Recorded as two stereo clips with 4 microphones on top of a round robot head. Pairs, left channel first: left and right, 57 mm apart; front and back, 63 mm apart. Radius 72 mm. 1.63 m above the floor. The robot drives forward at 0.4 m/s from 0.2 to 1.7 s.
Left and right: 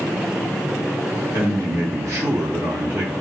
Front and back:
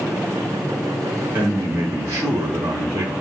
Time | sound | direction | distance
1.3 | a man speaking | 125° right | 1.1 m